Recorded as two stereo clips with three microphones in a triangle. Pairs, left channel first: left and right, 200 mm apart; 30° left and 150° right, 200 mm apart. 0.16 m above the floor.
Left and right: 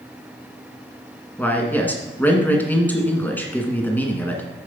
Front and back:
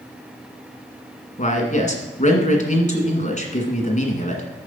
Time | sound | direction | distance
1.4 | a man speaking | 15° left | 1.8 m